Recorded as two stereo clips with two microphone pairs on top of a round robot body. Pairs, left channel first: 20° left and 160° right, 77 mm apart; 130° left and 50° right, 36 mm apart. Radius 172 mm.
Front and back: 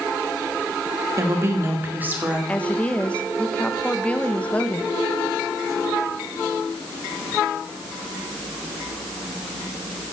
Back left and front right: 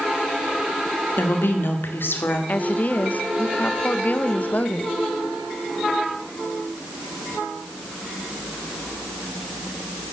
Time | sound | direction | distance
1.2 | a woman speaking | 150° left | 2.5 m
2.5 | a woman speaking | 95° left | 1.4 m